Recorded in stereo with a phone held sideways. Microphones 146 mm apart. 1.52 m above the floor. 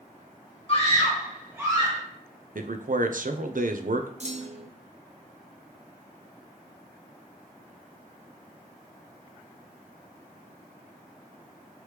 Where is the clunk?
50° right (ahead or behind), 0.6 m.